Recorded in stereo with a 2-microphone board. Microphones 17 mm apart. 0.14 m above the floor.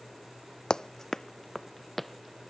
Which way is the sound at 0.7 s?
55° left (ahead or behind).